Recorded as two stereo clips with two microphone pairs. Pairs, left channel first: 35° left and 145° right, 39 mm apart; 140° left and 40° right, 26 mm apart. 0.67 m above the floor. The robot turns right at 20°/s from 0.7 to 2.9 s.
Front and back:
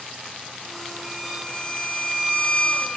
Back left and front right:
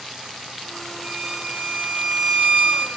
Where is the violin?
65° right, 0.8 m; by 2.9 s 30° right, 0.8 m.